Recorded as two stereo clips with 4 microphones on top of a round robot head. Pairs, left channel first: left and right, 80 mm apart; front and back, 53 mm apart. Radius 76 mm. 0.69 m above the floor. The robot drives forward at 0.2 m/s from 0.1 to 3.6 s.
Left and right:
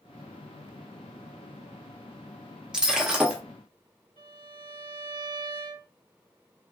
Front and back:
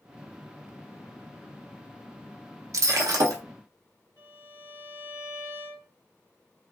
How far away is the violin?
About 1.0 m.